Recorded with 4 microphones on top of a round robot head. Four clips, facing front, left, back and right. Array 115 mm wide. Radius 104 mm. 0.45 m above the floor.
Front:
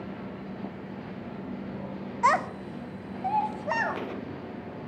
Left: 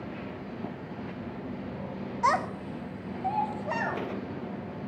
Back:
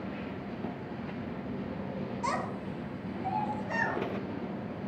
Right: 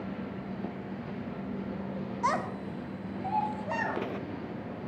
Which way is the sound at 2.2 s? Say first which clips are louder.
Left 4 dB, front 11 dB; 15° left.